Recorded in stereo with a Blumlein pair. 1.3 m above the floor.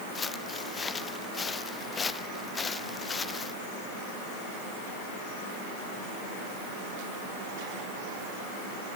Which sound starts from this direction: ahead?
Footsteps, at 0.1 s.